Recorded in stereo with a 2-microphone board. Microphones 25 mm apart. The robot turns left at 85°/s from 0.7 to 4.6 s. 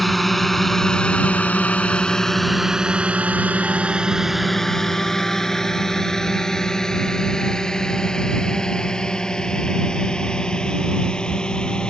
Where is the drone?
Centre (ahead or behind); by 11.9 s 35° left (ahead or behind).